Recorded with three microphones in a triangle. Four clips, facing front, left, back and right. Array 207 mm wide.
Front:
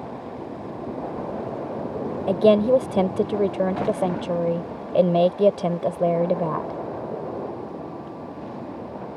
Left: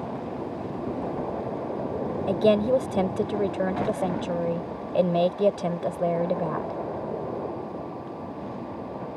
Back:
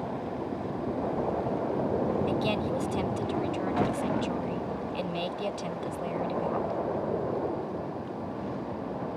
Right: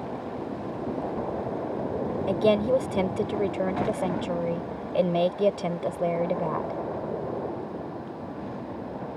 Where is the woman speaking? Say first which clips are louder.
Left 2 dB, front 12 dB; 5° left.